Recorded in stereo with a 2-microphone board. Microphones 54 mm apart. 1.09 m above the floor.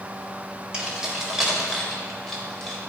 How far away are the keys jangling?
About 2.5 m.